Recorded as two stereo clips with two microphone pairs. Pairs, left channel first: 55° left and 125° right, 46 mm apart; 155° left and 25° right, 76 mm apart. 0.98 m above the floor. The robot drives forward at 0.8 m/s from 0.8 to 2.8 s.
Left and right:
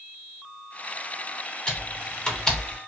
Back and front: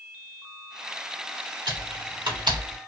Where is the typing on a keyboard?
10° right, 2 m; by 2.8 s 15° right, 1.2 m.